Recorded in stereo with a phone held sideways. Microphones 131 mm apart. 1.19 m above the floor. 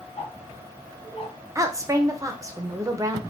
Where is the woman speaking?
25° right (ahead or behind), 0.5 m.